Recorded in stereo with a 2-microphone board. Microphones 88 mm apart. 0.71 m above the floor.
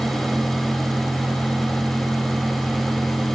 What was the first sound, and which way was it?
Only background noise.